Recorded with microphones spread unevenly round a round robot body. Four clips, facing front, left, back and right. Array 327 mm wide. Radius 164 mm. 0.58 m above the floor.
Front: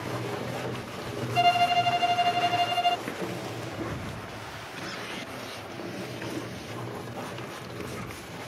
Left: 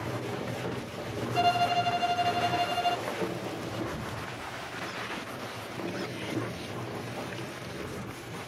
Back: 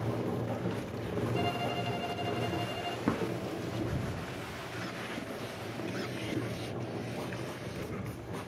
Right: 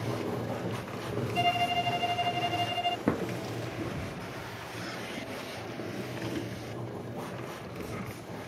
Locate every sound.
1.4 s a violin: 20° left
3.1 s a drawer: 125° right